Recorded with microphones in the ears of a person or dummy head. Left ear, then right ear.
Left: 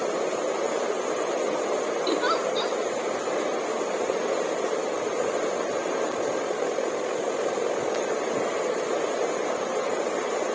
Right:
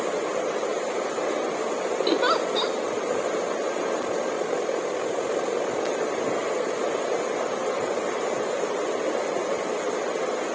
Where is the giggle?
10° right (ahead or behind), 0.9 m.